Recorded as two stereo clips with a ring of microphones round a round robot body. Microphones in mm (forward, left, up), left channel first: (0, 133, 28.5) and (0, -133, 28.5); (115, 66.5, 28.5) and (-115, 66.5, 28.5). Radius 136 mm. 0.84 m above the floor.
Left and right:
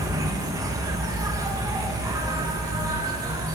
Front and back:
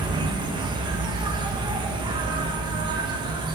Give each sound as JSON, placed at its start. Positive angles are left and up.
{"t": 0.0, "sound": "an insect", "azimuth_deg": -145, "distance_m": 1.5}